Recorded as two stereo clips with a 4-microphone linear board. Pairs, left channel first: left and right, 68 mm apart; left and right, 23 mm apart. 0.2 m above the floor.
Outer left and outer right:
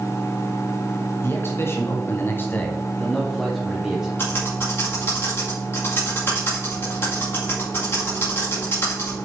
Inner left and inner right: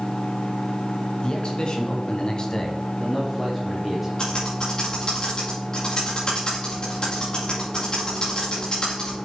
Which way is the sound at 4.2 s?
40° left (ahead or behind).